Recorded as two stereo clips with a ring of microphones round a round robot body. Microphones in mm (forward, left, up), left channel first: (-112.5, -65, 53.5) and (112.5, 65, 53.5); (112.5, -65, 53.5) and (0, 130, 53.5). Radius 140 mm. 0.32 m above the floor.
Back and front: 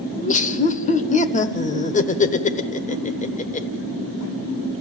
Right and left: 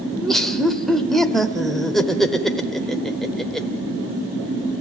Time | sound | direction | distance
0.1 | laughter | 145° right | 1.1 m